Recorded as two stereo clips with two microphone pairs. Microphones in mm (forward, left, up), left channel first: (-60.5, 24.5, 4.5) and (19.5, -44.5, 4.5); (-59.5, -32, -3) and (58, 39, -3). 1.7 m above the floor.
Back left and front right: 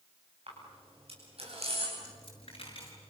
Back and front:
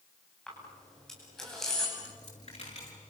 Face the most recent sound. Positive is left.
turn(degrees=175)